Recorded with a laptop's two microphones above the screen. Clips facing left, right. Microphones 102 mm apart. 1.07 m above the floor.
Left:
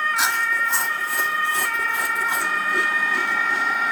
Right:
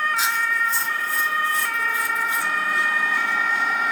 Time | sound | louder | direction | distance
0.2 | chewing | left 1 dB | 85° left | 2.0 m